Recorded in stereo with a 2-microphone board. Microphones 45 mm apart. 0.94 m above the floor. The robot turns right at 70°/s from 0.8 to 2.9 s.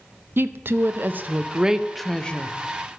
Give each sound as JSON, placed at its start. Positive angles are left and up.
{"t": 0.4, "sound": "a woman speaking", "azimuth_deg": -80, "distance_m": 0.6}